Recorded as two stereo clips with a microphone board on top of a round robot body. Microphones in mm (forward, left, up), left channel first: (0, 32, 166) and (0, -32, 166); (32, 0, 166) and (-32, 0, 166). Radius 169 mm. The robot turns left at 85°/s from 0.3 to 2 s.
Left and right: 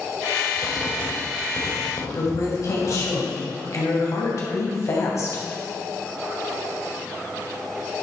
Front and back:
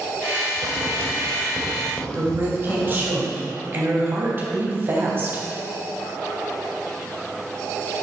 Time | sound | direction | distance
0.6 | writing | 165° right | 2 m
2.1 | a woman speaking | 125° left | 3.5 m